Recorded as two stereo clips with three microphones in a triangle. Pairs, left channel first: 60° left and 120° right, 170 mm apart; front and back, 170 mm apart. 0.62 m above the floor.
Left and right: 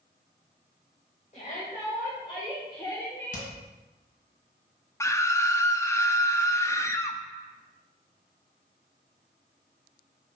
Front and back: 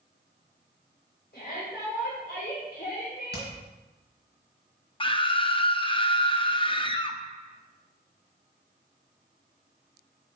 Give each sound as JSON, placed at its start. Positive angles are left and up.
{"t": 1.3, "sound": "a shout", "azimuth_deg": 15, "distance_m": 3.5}
{"t": 3.3, "sound": "hammering", "azimuth_deg": 20, "distance_m": 3.0}
{"t": 5.0, "sound": "a scream", "azimuth_deg": 0, "distance_m": 0.6}